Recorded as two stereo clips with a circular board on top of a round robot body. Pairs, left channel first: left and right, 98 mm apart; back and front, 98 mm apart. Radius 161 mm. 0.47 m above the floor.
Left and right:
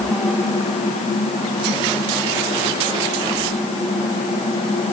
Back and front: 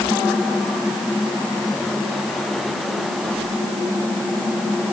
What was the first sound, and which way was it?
Only background noise.